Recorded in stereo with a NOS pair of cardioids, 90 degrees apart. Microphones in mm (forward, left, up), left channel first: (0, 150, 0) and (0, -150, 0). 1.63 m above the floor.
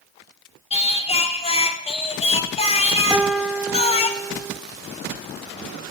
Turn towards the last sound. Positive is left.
turn(degrees=-5)